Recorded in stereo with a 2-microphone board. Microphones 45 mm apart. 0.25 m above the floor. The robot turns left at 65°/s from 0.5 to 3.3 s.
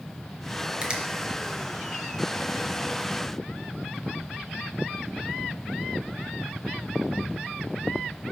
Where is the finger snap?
20° right (ahead or behind), 1.2 m; by 1.0 s 25° right (ahead or behind), 1.2 m.